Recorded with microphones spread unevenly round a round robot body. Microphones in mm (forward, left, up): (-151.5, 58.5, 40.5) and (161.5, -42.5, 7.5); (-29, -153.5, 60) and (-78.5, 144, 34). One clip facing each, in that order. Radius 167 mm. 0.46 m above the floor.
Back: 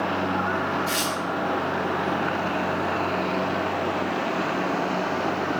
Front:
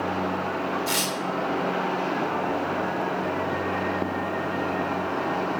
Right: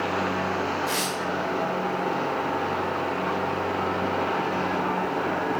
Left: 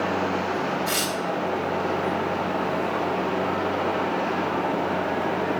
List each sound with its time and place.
0.9 s tearing paper: 30° left, 1.6 m